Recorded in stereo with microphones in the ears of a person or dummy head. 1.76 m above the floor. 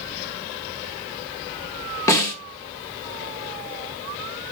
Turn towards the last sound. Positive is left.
turn(degrees=20)  # may be behind; listen again after turning